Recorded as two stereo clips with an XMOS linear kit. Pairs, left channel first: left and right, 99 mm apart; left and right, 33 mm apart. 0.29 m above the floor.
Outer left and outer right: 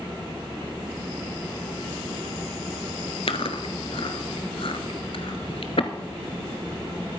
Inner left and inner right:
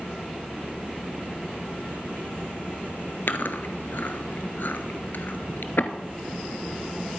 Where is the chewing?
70° left (ahead or behind), 0.9 m.